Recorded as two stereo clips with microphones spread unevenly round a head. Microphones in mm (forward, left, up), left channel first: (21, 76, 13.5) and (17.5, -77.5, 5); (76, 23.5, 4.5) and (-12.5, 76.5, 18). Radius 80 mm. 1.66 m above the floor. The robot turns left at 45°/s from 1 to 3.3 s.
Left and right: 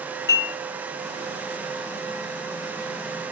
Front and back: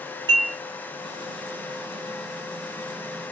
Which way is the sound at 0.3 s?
115° left.